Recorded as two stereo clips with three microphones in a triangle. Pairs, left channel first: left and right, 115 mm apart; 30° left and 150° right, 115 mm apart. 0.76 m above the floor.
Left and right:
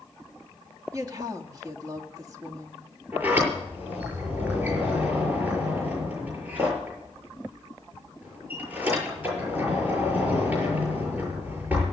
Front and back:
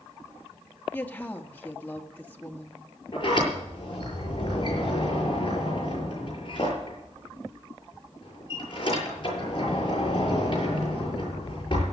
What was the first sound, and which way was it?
A woman speaking, 40° right.